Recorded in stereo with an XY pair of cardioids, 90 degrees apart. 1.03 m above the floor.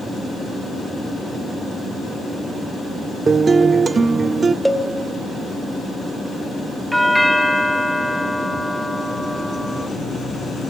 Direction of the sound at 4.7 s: 5° right.